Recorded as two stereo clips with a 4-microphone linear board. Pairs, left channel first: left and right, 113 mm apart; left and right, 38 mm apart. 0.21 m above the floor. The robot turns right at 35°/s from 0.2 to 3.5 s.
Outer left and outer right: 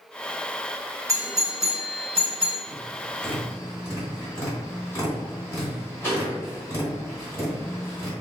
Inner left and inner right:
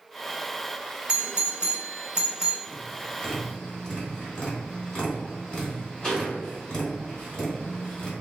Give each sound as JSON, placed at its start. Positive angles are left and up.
{"t": 1.1, "sound": "a doorbell", "side_deg": -25, "distance_m": 1.9}
{"t": 2.7, "sound": "tapping", "side_deg": 10, "distance_m": 1.7}